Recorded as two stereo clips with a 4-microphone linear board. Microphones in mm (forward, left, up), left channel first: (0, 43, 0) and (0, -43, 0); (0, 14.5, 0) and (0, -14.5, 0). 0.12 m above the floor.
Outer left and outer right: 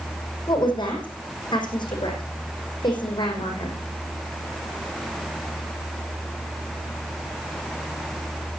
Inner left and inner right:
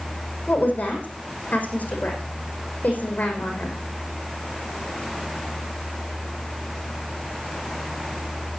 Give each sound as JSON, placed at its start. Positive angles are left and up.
{"t": 0.5, "sound": "a woman speaking", "side_deg": 55, "distance_m": 5.5}